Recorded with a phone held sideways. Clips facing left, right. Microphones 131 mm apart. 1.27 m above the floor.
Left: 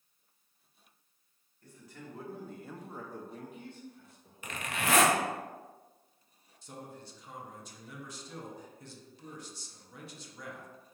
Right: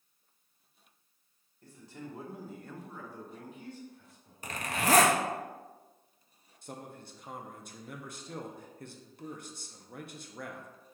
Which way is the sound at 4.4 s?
35° right (ahead or behind).